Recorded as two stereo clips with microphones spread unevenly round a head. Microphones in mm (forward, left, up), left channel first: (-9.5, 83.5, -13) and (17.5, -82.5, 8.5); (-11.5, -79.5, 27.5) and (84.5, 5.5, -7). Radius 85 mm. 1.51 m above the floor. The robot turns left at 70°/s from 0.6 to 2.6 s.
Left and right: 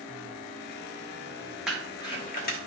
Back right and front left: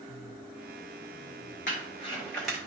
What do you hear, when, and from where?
1.7 s crumpling: 165° right, 1.8 m; by 2.6 s 130° left, 1.8 m